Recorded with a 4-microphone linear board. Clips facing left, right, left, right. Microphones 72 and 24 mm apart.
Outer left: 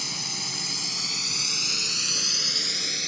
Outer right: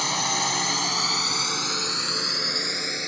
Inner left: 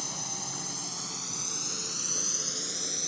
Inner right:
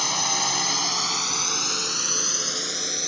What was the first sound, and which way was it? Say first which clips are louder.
A drone: outer right 12 dB, inner right 13 dB; 60° right (ahead or behind).